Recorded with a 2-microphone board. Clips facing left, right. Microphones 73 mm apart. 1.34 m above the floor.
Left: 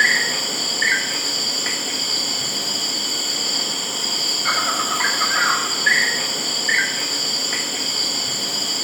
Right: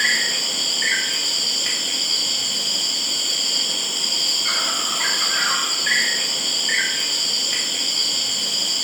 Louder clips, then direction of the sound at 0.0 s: Left 4 dB; 40° left (ahead or behind).